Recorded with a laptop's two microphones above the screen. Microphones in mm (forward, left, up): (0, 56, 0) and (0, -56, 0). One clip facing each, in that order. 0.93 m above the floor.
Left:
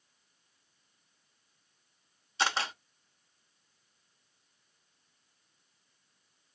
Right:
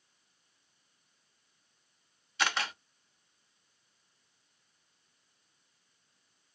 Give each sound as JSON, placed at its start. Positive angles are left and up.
{"t": 2.4, "sound": "a camera shutter", "side_deg": 30, "distance_m": 0.6}